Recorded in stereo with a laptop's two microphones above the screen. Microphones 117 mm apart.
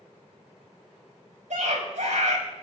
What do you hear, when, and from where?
1.5 s a scream: 80° right, 6 m